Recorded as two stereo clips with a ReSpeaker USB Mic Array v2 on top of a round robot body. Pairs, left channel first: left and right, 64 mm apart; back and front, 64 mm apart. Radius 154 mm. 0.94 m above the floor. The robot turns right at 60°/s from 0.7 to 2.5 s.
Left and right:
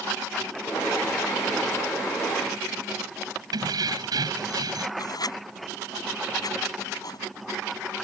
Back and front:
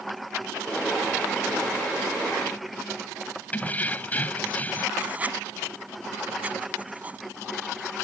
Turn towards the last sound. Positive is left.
turn(degrees=70)